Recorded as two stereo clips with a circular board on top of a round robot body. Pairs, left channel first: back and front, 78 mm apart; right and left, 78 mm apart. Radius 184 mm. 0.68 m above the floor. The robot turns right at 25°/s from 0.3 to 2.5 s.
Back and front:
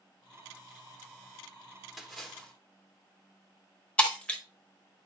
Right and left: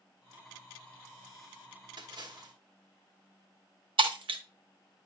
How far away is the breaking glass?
About 1.2 m.